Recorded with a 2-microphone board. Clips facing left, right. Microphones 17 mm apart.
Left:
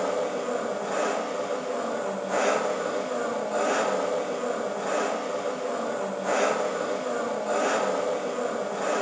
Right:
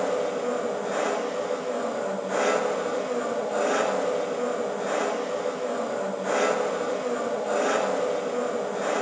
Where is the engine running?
5° left (ahead or behind), 6 m.